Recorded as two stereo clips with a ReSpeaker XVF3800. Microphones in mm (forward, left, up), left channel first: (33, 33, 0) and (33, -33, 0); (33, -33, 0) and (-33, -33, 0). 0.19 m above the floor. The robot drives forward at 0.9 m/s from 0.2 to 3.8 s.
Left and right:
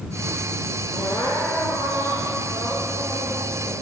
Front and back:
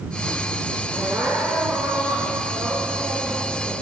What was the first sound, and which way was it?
Crying, 105° left.